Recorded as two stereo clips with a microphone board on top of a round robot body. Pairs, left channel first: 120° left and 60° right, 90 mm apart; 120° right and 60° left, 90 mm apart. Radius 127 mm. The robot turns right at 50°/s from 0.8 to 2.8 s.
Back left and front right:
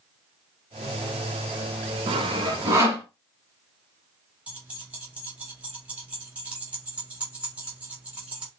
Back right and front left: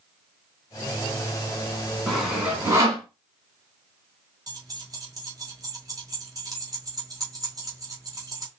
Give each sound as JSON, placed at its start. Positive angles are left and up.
{"t": 2.1, "sound": "sawing", "azimuth_deg": -35, "distance_m": 1.1}
{"t": 4.5, "sound": "keys jangling", "azimuth_deg": 15, "distance_m": 1.8}